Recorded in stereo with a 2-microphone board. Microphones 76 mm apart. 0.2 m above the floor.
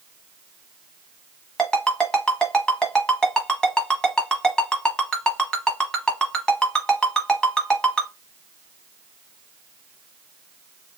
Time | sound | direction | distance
1.6 | a ringtone | 10° left (ahead or behind) | 1.0 m